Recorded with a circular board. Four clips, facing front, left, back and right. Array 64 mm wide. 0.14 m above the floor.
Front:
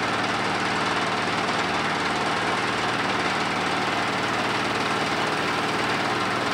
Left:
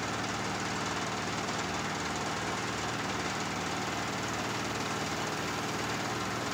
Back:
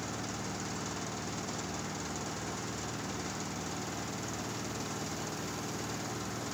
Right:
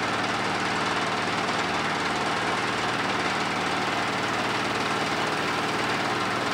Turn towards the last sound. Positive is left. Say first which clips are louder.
# right 8 dB, front 15 dB
turn(degrees=-30)